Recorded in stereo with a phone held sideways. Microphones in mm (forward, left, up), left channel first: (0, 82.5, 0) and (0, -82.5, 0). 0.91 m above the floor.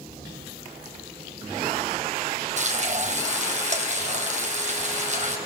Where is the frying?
45° right (ahead or behind), 2.5 m.